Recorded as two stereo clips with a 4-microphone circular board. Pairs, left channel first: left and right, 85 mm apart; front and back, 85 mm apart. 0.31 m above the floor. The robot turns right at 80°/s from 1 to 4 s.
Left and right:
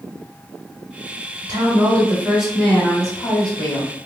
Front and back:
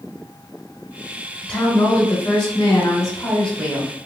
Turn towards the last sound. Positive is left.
turn(degrees=125)